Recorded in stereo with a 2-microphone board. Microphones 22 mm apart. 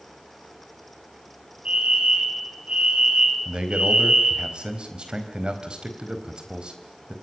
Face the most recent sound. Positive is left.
turn(degrees=-45)  # may be behind; listen again after turning